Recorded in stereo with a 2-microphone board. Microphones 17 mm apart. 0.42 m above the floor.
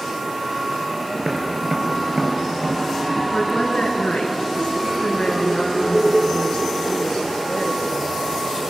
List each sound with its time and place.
1.1 s tapping: 35° right (ahead or behind), 4 m
3.3 s a woman speaking: 80° left, 5.5 m